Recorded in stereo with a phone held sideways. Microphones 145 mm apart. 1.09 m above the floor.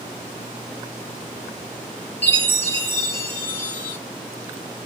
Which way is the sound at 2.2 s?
15° left (ahead or behind).